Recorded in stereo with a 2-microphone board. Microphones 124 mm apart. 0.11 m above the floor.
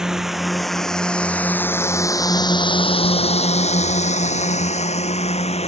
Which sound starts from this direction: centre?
A drone, at 0.0 s.